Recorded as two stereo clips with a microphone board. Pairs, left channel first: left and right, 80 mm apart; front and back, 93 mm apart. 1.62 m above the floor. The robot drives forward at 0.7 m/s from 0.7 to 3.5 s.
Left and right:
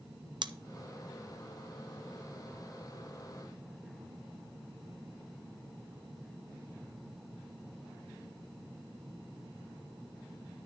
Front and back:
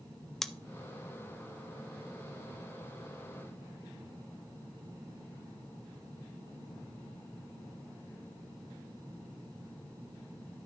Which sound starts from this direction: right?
Scissors, at 0.4 s.